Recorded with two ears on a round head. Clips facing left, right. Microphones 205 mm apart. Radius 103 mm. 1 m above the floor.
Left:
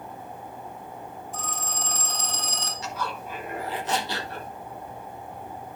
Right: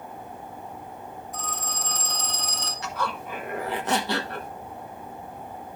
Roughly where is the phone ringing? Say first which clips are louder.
Left 1 dB; left.